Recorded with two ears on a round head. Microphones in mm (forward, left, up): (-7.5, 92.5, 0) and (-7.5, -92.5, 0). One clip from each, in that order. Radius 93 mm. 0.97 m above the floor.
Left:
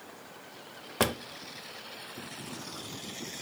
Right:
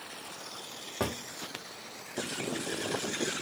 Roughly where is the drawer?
Left.